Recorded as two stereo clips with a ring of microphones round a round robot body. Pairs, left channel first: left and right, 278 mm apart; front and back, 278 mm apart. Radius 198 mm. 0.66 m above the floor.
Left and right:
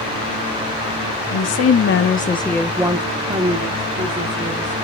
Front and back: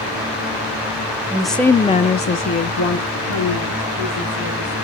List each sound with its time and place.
1.3 s a woman speaking: 95° left, 1.0 m; by 4.8 s 40° right, 2.5 m